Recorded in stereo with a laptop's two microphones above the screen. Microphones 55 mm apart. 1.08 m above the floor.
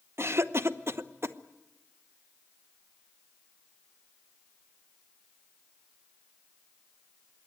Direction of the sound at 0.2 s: 55° right (ahead or behind).